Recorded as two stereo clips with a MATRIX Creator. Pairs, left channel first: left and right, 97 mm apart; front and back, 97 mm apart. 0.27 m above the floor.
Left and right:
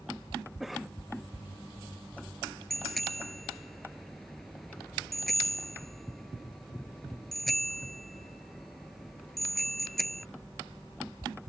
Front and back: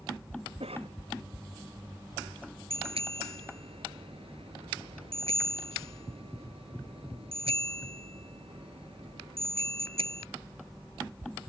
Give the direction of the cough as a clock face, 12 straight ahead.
6 o'clock.